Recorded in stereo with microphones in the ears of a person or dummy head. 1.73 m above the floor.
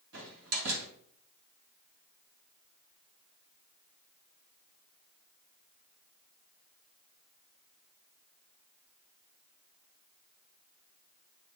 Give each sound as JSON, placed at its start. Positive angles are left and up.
{"t": 0.1, "sound": "a door slam", "side_deg": -75, "distance_m": 2.5}